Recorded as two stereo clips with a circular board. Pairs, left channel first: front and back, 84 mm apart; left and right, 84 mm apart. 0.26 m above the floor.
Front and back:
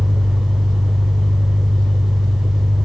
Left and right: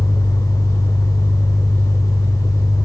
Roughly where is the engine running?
Behind right.